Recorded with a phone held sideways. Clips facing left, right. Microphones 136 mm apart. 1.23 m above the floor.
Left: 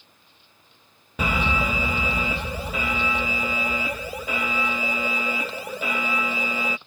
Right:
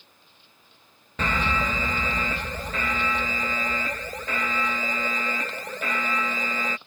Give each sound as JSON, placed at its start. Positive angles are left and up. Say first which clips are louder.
{"t": 1.2, "sound": "an alarm", "louder": "left 2 dB", "side_deg": 10}